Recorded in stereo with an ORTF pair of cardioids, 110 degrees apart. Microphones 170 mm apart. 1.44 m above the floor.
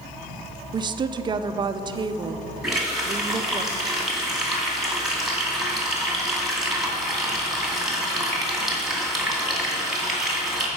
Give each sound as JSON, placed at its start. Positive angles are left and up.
{"t": 0.7, "sound": "a woman speaking", "azimuth_deg": -25, "distance_m": 0.5}
{"t": 2.6, "sound": "a running tap", "azimuth_deg": -5, "distance_m": 2.0}